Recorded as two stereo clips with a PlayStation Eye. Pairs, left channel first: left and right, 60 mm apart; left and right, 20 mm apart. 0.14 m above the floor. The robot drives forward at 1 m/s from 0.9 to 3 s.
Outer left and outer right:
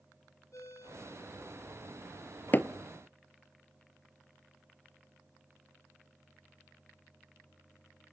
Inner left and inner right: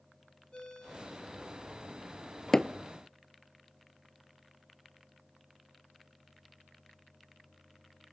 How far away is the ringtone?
About 3.5 m.